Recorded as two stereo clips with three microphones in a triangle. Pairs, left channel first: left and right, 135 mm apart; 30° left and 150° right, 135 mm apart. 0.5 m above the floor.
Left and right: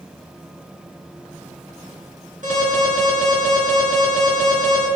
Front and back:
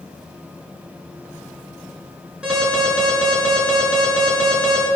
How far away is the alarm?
About 5.5 m.